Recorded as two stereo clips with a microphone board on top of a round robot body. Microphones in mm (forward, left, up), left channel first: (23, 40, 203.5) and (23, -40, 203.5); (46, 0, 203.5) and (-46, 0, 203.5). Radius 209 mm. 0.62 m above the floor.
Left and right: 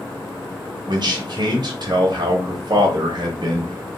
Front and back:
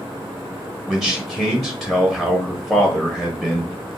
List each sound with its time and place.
0.9 s a man speaking: 85° right, 1.1 m